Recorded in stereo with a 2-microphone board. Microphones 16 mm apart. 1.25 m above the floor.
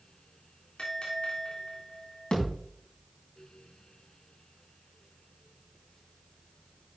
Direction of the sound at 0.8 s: 80° left.